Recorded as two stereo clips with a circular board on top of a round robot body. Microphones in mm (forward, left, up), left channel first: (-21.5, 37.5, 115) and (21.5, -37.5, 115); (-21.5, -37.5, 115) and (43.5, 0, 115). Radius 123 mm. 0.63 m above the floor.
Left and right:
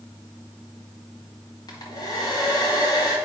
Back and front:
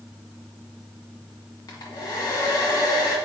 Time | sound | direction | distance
1.7 | a hair dryer | 165° left | 1.1 m